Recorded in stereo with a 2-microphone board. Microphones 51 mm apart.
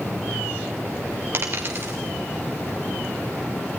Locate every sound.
1.3 s a dropped coin: 50° right (ahead or behind), 3 m